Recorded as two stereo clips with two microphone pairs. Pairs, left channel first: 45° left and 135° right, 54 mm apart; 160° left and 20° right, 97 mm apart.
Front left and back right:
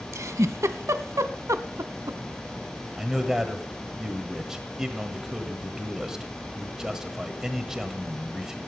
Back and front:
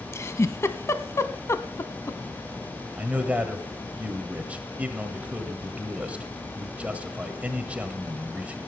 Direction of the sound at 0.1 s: 140° right.